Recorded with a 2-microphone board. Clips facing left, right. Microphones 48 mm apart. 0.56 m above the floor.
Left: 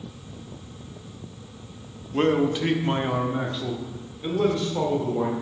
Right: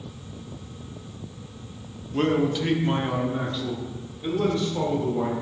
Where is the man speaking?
20° left (ahead or behind), 0.8 m; by 5.3 s 15° left (ahead or behind), 1.9 m.